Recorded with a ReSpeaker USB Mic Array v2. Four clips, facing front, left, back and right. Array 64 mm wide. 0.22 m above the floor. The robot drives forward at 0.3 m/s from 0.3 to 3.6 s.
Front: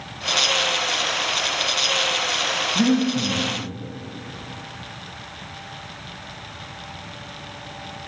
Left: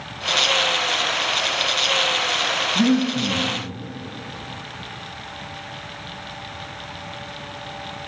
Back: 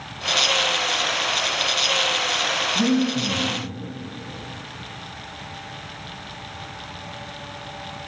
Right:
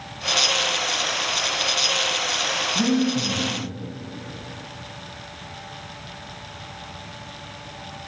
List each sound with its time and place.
2.8 s breathing: 30° left, 1.2 m; by 3.5 s 45° left, 1.1 m